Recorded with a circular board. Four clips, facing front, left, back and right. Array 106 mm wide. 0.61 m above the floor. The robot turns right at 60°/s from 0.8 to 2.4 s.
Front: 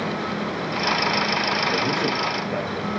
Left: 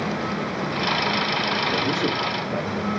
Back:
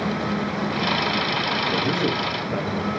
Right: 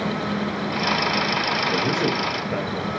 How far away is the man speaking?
About 0.9 m.